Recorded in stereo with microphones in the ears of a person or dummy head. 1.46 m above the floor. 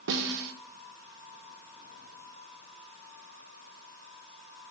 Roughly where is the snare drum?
Right.